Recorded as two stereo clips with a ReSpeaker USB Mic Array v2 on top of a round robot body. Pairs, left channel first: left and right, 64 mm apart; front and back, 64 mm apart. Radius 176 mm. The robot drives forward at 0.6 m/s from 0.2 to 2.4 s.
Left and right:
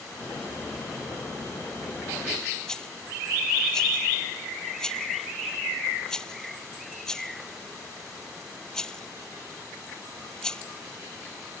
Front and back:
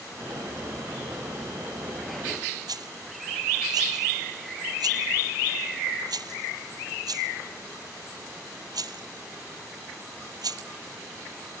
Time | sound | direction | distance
2.7 | a rattle | 170° left | ?